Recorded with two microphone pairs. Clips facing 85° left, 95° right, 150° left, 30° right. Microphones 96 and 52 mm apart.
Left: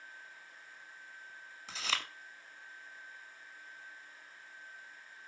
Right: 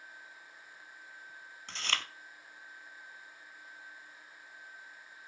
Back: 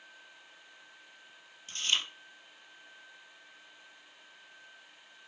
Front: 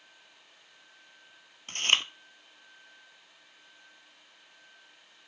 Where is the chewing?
Straight ahead, 1.0 m.